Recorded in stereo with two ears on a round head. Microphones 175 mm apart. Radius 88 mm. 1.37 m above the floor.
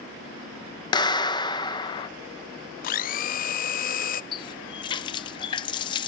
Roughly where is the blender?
Left.